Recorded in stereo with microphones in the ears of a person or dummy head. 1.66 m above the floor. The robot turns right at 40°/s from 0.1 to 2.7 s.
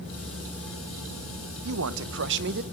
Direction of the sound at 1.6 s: 85° right.